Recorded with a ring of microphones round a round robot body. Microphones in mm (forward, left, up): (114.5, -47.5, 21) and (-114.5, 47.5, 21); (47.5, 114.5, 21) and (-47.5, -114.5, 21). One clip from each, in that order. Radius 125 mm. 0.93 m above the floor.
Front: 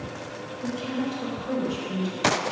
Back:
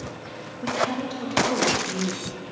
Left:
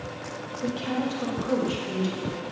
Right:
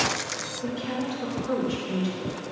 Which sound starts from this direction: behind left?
A woman speaking, at 0.6 s.